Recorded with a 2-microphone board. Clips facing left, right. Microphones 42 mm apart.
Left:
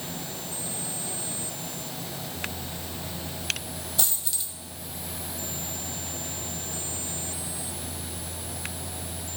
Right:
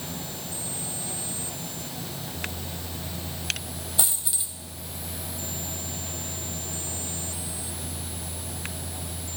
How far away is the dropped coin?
About 1.1 m.